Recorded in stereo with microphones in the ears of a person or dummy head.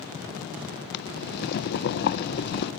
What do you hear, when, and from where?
0.9 s boiling: 55° left (ahead or behind), 0.7 m